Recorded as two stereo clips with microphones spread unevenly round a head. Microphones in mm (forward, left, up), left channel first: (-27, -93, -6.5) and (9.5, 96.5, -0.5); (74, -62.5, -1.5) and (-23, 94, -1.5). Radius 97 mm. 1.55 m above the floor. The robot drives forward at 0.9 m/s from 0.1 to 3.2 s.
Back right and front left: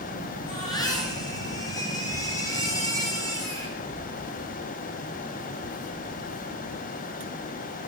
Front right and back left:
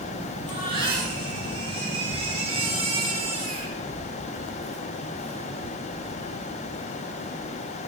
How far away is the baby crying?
About 9 m.